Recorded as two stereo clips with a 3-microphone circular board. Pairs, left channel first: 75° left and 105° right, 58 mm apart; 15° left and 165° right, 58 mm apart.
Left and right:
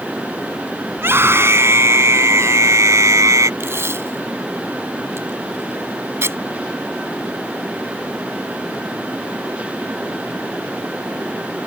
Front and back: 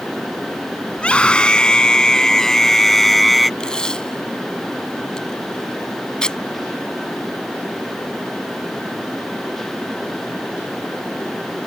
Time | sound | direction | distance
0.9 | a scream | 55° right | ?
3.6 | tape being pulled | 60° right | ?